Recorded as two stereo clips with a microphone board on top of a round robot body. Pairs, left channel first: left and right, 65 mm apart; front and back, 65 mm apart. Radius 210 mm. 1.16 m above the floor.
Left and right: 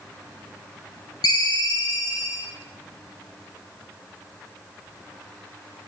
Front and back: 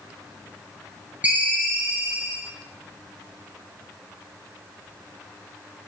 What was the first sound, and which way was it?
A ringtone, 110° left.